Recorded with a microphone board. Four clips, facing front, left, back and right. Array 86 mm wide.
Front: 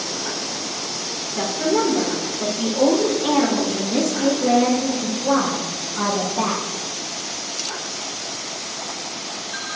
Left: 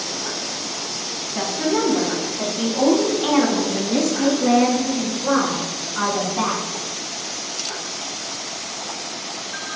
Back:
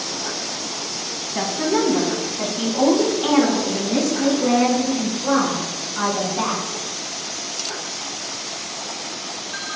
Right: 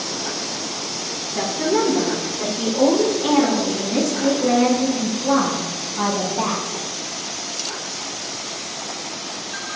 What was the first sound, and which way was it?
A woman speaking, 175° left.